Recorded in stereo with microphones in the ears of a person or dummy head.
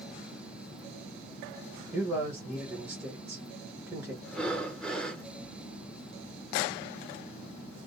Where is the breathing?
5° left (ahead or behind), 0.6 m.